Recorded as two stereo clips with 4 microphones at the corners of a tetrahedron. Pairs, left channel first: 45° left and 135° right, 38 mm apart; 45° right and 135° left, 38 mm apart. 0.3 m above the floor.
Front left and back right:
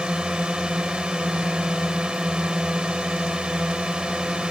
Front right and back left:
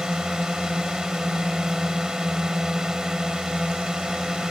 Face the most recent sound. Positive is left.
turn(degrees=-170)